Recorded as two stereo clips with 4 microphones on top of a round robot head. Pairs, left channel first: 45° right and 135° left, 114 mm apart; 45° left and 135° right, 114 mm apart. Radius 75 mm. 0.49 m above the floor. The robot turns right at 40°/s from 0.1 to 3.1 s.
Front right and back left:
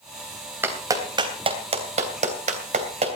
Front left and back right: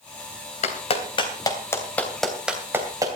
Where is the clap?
65° left, 3 m; by 3.2 s 165° left, 3 m.